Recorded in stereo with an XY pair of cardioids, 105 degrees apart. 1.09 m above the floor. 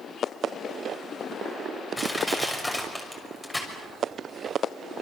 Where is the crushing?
10° left, 6.5 m.